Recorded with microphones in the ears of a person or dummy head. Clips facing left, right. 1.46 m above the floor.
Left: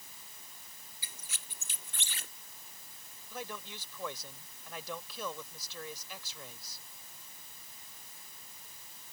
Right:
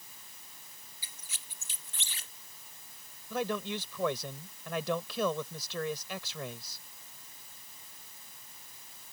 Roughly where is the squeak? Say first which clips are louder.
Left 4 dB; left.